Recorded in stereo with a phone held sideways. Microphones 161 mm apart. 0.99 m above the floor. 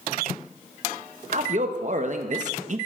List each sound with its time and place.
1.3 s a man speaking: 50° right (ahead or behind), 1.1 m